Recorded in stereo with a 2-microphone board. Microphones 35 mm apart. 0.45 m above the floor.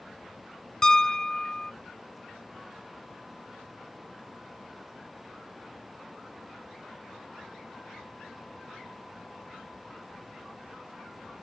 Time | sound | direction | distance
0.8 | a piano | 25° left (ahead or behind) | ?